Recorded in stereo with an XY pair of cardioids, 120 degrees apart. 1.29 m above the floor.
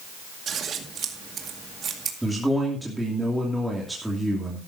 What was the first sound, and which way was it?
Scissors, 45° right.